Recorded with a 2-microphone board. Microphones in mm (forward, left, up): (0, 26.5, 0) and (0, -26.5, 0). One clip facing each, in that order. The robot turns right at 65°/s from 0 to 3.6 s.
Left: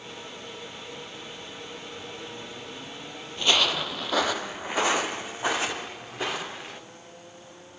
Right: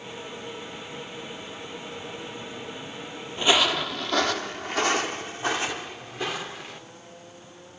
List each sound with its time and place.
3.4 s footsteps: 25° right (ahead or behind), 0.6 m; by 6.8 s 25° left (ahead or behind), 2.5 m